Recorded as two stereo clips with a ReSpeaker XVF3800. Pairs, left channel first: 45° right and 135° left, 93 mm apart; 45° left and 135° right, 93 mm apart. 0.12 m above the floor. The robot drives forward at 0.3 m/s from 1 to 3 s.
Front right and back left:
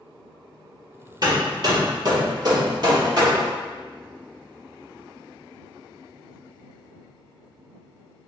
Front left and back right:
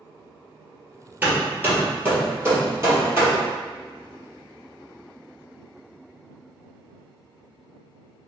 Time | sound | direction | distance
1.2 | hammering | 160° left | 1.3 m